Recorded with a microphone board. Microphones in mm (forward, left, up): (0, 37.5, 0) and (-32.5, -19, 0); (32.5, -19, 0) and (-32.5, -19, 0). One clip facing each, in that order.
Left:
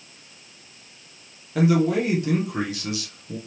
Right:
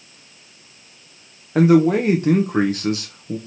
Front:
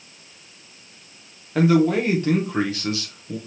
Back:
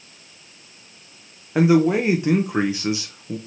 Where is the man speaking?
115° right, 0.7 m.